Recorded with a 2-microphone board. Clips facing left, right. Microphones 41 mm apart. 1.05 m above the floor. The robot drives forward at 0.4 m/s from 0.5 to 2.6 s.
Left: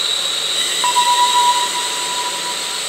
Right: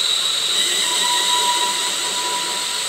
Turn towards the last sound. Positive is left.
turn(degrees=30)  # may be behind; listen again after turning